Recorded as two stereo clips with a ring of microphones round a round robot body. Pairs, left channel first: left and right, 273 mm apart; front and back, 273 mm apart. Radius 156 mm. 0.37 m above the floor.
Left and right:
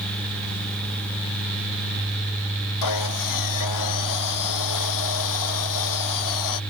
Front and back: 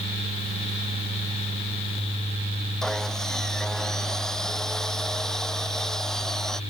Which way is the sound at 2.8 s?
90° left.